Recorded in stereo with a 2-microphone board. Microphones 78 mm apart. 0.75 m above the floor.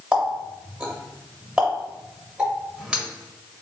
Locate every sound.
0.1 s a running tap: 15° right (ahead or behind), 1.8 m